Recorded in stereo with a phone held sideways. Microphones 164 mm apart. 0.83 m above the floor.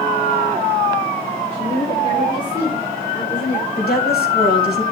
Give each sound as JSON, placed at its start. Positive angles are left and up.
{"t": 1.5, "sound": "a woman speaking", "side_deg": 25, "distance_m": 8.5}
{"t": 3.8, "sound": "a woman speaking", "side_deg": 80, "distance_m": 3.5}